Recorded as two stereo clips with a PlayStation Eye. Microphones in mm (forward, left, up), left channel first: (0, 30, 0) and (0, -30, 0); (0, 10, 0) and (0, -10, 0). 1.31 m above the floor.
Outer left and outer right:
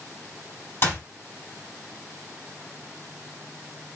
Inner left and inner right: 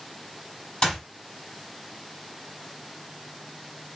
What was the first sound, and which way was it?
A clap, 40° left (ahead or behind).